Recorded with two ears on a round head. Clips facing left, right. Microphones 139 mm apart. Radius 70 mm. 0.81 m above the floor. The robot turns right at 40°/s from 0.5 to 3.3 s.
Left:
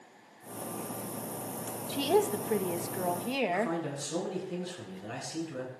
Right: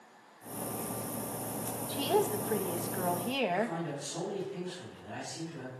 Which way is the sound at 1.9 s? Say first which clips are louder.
Left 3 dB; 20° left (ahead or behind).